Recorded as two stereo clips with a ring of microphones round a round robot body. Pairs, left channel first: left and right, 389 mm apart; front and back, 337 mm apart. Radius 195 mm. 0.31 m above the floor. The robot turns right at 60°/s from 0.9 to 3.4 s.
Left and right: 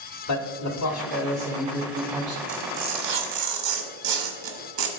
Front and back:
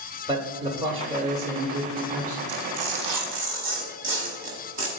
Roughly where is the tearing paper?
Behind.